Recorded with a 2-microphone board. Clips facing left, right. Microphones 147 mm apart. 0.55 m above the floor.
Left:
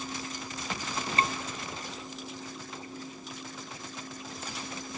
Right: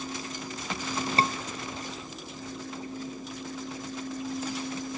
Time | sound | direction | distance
1.2 | a scream | 30° right (ahead or behind) | ?